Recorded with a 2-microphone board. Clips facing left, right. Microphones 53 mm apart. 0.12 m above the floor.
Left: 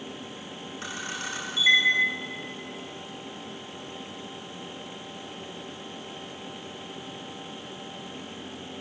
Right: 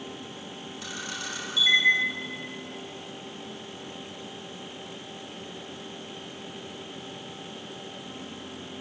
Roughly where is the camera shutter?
Left.